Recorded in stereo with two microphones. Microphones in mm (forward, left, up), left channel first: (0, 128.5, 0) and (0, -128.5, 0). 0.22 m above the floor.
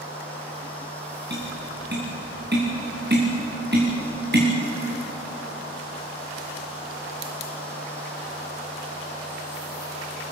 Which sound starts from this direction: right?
Tapping, at 1.3 s.